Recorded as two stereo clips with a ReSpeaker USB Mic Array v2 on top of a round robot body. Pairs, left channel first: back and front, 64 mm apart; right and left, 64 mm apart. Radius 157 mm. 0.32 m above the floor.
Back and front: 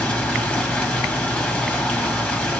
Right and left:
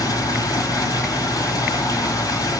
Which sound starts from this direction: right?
Running water, at 0.0 s.